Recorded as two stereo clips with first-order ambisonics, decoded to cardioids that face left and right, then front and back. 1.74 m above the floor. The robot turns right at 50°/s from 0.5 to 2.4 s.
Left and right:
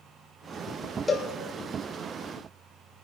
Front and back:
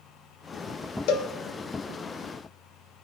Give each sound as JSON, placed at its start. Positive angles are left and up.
{"t": 1.1, "sound": "a cowbell", "azimuth_deg": 15, "distance_m": 1.0}